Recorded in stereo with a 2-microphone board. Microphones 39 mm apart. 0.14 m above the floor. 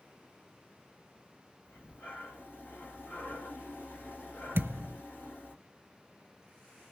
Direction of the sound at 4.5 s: 75° right (ahead or behind).